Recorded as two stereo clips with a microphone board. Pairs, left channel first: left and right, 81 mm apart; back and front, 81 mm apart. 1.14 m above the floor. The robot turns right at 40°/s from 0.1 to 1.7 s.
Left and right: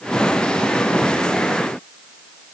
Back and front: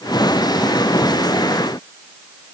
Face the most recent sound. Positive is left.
No sound to turn to.